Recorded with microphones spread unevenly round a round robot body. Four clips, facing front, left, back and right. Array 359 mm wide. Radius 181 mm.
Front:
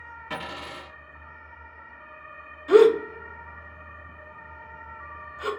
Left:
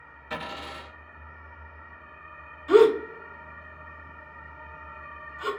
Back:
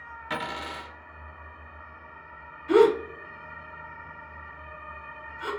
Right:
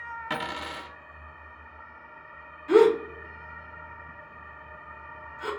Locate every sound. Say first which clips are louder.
0.3 s a dropped coin: right 1 dB, back 3 dB; 100° right, 1.5 m
2.7 s a gasp: left 1 dB, front 3 dB; 5° left, 1.1 m